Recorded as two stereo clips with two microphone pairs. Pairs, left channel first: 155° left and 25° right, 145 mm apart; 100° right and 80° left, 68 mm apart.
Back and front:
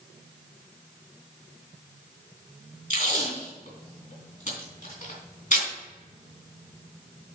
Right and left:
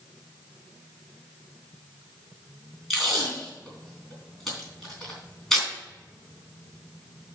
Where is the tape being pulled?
175° left, 3 m.